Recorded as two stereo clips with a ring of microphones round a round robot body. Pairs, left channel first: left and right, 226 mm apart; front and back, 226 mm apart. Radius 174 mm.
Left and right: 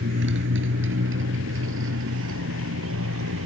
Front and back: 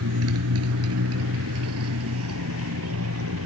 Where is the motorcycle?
145° right; by 3.5 s 135° right.